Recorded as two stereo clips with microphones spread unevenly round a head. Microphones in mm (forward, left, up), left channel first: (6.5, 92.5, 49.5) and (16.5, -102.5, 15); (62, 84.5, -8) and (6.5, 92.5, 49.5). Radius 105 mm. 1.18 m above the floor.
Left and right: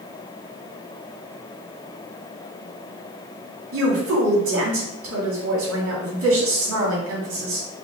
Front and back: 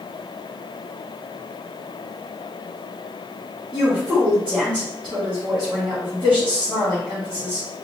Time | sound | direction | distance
3.7 | a woman speaking | 100° right | 2.5 m